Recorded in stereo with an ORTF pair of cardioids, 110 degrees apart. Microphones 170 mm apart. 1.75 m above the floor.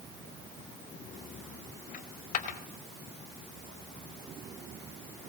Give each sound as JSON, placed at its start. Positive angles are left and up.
{"t": 1.9, "sound": "a dropped coin", "azimuth_deg": 55, "distance_m": 4.0}